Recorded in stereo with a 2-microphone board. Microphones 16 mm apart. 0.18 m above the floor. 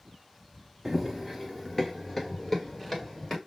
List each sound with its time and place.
0.8 s running footsteps: 20° right (ahead or behind), 0.6 m; by 3.4 s 15° left (ahead or behind), 2 m